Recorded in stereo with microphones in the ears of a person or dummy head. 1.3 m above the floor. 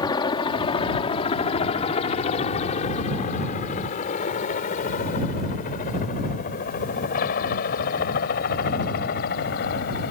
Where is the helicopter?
20° left (ahead or behind); by 10.1 s 50° left (ahead or behind).